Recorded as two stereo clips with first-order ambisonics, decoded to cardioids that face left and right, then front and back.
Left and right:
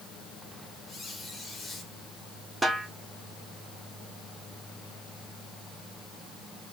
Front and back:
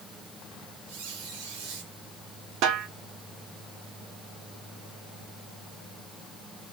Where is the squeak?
165° left, 4 m.